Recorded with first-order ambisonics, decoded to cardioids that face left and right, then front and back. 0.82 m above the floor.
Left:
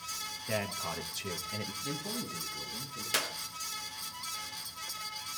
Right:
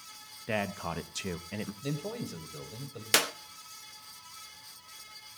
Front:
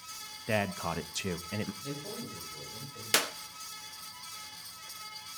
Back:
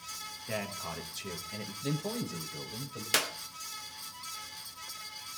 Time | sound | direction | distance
0.5 | a man speaking | 35° right | 0.7 m
1.8 | a man speaking | 115° right | 4 m
3.1 | a clap | 80° right | 0.7 m